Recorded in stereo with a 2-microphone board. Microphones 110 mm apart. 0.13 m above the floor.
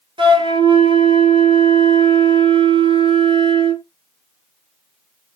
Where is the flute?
50° right (ahead or behind), 1.0 m.